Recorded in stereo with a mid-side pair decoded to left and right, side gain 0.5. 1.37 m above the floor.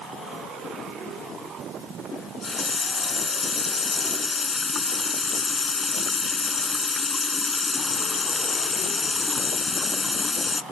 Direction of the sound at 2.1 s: 30° left.